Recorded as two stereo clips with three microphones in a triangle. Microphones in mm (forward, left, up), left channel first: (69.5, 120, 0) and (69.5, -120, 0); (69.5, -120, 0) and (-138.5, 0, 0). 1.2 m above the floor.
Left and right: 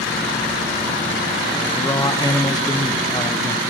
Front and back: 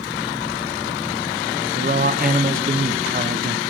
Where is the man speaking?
150° left, 0.6 m.